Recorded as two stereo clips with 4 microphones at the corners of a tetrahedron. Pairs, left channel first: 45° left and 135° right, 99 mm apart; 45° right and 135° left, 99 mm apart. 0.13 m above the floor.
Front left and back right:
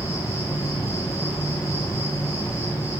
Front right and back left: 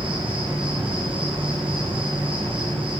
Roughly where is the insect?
Left.